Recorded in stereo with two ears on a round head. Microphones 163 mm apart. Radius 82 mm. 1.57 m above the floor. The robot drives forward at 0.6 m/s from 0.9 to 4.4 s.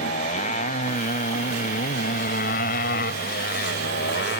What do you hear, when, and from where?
0.0 s a motorcycle: 40° left (ahead or behind); by 4.4 s 60° left (ahead or behind)